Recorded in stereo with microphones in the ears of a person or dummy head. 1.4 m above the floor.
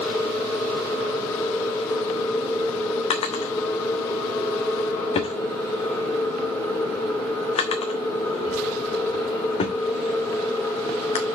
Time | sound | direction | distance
0.0 | a machine running | 5° left (ahead or behind) | 1.9 m
3.1 | a drawer | 30° left (ahead or behind) | 1.1 m